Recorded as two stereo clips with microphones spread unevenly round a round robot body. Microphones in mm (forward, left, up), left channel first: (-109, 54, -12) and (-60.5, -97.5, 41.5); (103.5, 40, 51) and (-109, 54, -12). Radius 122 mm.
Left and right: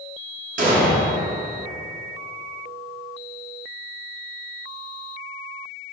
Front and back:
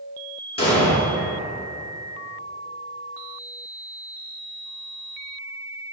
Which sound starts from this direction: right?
An explosion, at 0.6 s.